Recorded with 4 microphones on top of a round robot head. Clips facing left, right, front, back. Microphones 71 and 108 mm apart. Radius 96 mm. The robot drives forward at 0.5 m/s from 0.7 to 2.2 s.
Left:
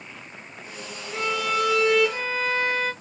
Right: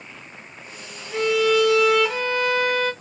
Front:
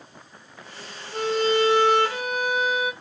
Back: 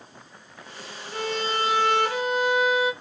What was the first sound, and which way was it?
A violin, 80° right.